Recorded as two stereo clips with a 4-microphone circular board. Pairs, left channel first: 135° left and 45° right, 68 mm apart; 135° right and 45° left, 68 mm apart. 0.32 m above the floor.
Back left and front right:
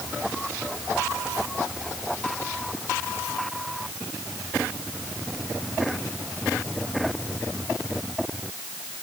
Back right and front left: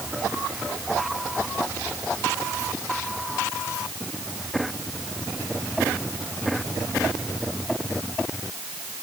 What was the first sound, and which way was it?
Only background noise.